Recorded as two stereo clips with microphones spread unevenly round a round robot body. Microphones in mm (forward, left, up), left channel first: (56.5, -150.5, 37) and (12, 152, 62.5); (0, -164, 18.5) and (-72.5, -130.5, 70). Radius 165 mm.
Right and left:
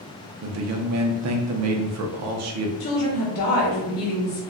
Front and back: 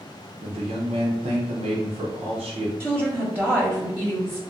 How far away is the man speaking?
About 0.5 m.